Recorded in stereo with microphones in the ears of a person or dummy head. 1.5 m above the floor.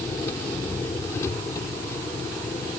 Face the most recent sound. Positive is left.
turn(degrees=20)  # may be behind; listen again after turning